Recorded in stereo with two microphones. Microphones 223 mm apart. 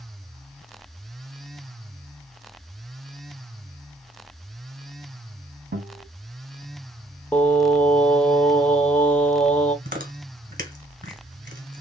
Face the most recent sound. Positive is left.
turn(degrees=-40)  # may be behind; listen again after turning